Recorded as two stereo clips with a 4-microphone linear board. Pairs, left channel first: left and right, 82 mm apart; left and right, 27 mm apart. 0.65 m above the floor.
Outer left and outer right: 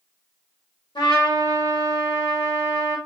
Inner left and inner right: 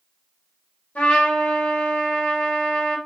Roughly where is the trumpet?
Left.